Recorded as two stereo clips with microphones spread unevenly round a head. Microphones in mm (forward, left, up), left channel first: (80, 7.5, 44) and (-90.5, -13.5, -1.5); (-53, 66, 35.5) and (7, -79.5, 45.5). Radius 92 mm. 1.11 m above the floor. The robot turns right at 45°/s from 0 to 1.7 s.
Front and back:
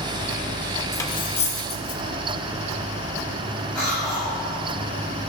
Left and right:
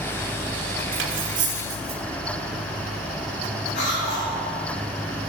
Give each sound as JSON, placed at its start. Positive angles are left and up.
{"t": 0.9, "sound": "cutlery clinking", "azimuth_deg": -65, "distance_m": 1.7}
{"t": 3.8, "sound": "a cough", "azimuth_deg": 90, "distance_m": 7.5}